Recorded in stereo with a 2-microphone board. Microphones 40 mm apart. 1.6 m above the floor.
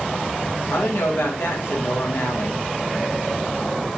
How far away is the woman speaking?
About 2 m.